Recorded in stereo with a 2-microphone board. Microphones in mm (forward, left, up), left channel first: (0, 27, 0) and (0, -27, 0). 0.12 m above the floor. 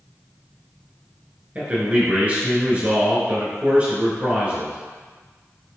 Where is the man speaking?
25° right (ahead or behind), 1.3 m.